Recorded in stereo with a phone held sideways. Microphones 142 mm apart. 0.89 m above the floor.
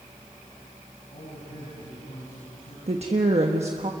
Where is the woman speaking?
50° right (ahead or behind), 1.3 m.